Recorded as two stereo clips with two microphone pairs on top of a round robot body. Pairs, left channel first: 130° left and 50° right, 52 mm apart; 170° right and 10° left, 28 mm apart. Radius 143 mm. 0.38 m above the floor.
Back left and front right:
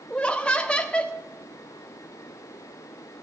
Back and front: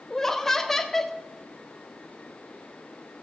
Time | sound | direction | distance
0.1 | laughter | 130° left | 0.8 m